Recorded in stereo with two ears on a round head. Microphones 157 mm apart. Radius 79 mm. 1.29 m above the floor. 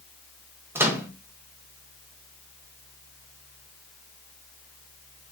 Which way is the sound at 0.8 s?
15° right (ahead or behind).